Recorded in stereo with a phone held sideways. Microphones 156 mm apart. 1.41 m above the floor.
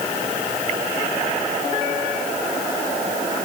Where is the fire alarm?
No fire alarm in this recording.